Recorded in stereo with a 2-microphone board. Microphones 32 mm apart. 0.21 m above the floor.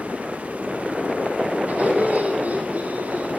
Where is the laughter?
55° right (ahead or behind), 8 m; by 3.3 s 50° right (ahead or behind), 7.5 m.